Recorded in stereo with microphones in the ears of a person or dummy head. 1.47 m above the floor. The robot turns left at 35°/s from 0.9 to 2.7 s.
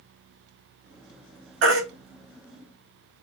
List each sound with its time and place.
1.6 s a baby crying: 70° right (ahead or behind), 1.9 m